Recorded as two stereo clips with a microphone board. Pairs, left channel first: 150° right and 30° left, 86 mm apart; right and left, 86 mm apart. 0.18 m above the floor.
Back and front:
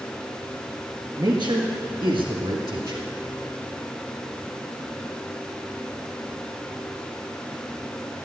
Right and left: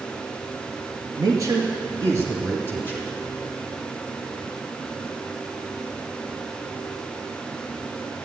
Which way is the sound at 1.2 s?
55° left.